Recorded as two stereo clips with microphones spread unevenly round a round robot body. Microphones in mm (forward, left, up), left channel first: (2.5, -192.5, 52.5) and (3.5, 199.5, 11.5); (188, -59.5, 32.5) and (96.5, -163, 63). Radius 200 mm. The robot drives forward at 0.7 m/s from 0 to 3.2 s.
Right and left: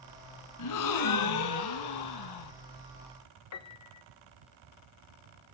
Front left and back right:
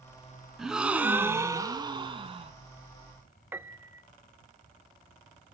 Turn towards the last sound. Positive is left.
turn(degrees=-45)